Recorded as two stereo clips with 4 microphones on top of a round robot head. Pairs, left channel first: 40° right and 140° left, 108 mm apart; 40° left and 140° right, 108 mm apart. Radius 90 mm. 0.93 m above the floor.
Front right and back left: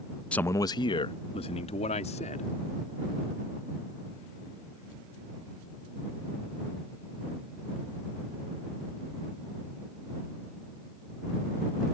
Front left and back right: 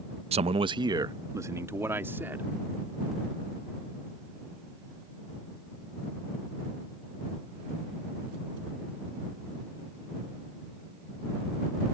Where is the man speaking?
120° right; by 2.5 s 65° right.